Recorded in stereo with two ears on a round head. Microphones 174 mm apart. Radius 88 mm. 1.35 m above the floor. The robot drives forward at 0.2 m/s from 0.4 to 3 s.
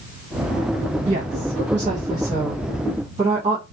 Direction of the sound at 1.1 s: 30° right (ahead or behind).